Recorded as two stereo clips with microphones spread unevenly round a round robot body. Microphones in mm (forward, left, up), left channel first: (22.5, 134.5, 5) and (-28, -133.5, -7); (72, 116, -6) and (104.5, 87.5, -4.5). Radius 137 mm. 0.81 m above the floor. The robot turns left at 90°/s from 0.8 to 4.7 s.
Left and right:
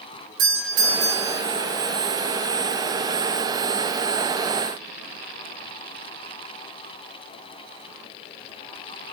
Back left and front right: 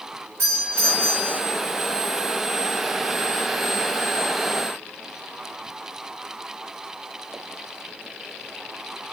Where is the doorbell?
95° right, 4.5 m; by 1.4 s 150° right, 4.5 m.